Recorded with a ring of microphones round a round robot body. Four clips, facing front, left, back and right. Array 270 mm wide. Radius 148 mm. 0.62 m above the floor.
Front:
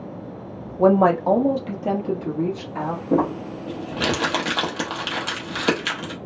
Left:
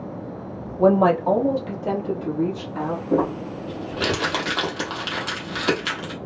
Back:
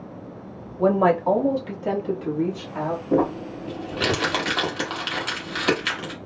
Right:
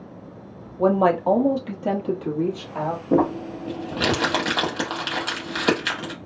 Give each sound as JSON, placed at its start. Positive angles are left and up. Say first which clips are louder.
{"t": 0.8, "sound": "a woman speaking", "louder": "left 2 dB, front 3 dB", "azimuth_deg": 0, "distance_m": 0.7}
{"t": 3.1, "sound": "crumpling", "louder": "right 2 dB, front 1 dB", "azimuth_deg": -50, "distance_m": 1.0}